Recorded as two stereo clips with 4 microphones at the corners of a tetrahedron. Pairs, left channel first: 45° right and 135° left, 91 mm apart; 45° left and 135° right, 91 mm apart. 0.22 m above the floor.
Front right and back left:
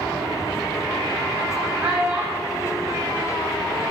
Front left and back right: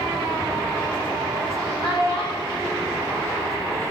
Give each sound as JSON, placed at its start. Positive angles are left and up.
{"t": 1.8, "sound": "a child speaking", "azimuth_deg": 60, "distance_m": 6.0}